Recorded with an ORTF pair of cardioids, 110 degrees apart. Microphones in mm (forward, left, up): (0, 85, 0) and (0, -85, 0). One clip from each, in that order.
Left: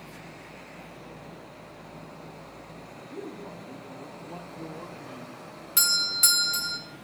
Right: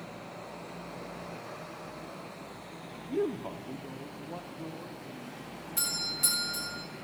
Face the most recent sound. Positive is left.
turn(degrees=70)